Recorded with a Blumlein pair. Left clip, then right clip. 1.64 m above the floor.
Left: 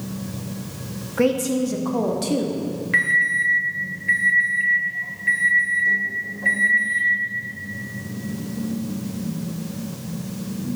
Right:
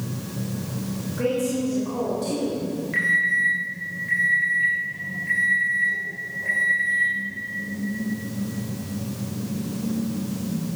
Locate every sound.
1.2 s a woman speaking: 30° left, 0.9 m
2.9 s an alarm: 70° left, 2.5 m